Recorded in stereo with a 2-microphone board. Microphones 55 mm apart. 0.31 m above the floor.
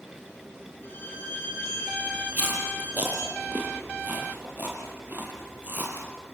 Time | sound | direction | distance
0.8 | a violin | 40° left (ahead or behind) | 5.5 m
2.3 | chewing | 35° right (ahead or behind) | 5 m